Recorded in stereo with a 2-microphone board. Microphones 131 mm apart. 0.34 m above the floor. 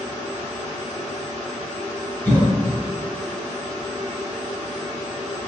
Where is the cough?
10° left (ahead or behind), 0.8 m.